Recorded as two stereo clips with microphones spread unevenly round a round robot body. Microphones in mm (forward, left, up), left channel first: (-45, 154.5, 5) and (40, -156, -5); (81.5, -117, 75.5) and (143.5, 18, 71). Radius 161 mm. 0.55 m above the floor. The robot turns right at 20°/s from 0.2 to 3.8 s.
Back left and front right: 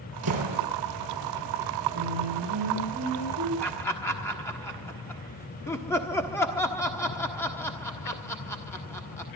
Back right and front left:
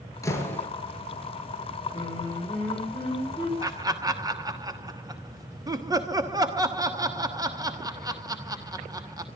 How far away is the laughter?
About 1.3 m.